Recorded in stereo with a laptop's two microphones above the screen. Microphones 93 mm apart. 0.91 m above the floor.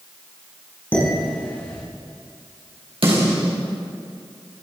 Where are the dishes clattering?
25° left (ahead or behind), 6 m.